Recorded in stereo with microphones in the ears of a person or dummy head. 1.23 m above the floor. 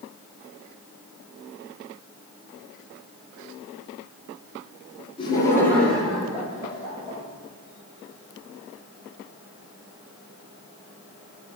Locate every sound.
5.2 s laughter: 25° left (ahead or behind), 0.9 m; by 7.2 s 10° right (ahead or behind), 2.5 m